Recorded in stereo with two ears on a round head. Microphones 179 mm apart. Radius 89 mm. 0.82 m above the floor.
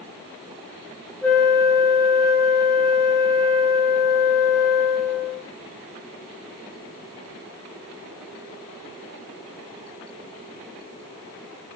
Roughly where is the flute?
Centre.